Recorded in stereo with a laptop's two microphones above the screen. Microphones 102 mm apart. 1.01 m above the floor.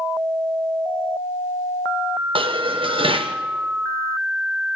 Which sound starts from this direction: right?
Dishes clattering, at 2.4 s.